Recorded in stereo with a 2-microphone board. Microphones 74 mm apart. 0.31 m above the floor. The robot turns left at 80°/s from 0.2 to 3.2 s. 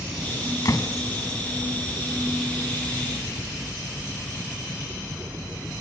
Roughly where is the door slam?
Left.